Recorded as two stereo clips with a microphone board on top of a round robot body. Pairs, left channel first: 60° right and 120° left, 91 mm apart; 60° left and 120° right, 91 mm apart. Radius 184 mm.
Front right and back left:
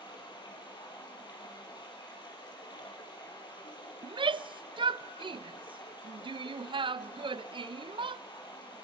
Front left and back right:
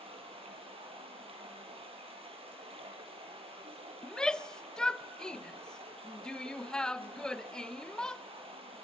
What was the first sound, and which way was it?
Running water, 105° right.